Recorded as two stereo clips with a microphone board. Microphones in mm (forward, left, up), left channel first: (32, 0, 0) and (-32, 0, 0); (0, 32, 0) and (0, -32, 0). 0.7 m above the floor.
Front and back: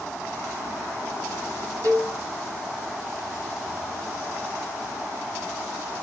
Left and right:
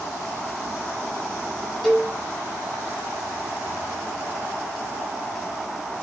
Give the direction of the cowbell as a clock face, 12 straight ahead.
6 o'clock.